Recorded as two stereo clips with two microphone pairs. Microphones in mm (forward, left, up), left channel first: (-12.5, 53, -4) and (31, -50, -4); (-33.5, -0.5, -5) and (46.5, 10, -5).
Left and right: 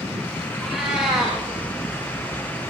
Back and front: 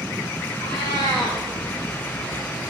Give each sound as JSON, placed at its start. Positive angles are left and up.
{"t": 0.6, "sound": "a cat meowing", "azimuth_deg": -150, "distance_m": 6.0}